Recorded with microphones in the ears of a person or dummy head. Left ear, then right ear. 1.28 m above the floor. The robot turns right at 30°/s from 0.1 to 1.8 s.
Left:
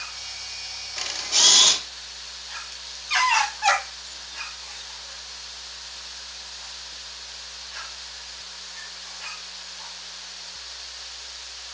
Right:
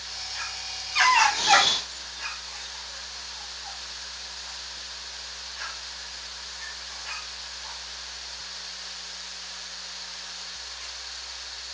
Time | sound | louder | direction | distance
1.0 | a camera shutter | right 3 dB | 80° left | 1.9 m